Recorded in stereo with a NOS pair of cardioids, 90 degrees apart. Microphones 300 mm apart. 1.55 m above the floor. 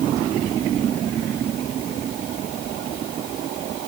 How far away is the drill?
No drill in this recording.